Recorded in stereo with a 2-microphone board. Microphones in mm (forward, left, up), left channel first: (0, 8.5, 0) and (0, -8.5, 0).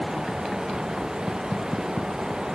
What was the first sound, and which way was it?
Only background noise.